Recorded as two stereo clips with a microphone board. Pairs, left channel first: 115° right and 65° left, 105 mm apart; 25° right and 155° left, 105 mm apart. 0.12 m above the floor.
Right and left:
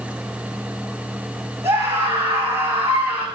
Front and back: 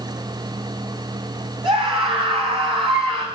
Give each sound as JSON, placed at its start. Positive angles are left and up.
{"t": 1.6, "sound": "a scream", "azimuth_deg": 130, "distance_m": 9.0}